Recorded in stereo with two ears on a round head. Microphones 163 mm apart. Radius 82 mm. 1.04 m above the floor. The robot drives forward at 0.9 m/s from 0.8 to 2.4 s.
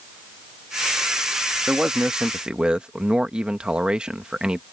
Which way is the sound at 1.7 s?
5° right (ahead or behind).